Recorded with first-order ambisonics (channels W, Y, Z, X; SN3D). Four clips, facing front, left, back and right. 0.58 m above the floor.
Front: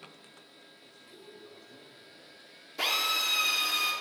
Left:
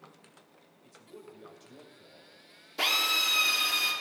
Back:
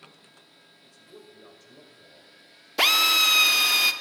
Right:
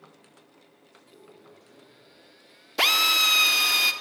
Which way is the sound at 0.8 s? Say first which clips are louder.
Left 4 dB, back 4 dB; 150° left.